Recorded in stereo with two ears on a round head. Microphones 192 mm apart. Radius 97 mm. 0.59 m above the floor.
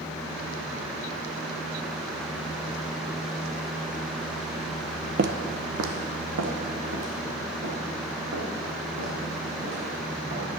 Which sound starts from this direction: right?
Footsteps, at 5.2 s.